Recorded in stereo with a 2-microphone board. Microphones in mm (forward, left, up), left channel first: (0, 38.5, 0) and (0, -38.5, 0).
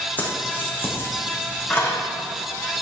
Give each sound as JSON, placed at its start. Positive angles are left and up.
{"t": 0.2, "sound": "keys jangling", "side_deg": 25, "distance_m": 4.0}